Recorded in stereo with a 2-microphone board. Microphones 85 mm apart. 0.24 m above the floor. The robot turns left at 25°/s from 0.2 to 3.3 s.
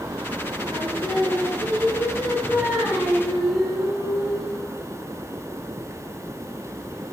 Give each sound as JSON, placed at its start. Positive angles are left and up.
{"t": 0.7, "sound": "singing", "azimuth_deg": -105, "distance_m": 2.5}